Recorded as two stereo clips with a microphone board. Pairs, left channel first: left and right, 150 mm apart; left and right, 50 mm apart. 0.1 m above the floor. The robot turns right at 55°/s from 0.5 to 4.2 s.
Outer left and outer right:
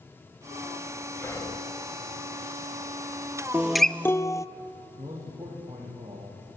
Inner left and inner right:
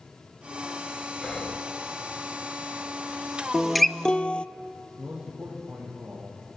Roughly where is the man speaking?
Centre.